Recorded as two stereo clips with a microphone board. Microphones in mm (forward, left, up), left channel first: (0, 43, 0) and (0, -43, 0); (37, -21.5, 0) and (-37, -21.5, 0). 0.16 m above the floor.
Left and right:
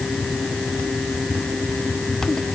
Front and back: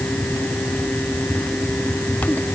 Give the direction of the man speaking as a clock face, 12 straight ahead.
I don't hear a man speaking.